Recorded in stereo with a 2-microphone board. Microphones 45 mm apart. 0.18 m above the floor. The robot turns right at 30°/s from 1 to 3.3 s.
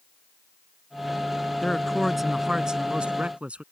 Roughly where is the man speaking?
Behind.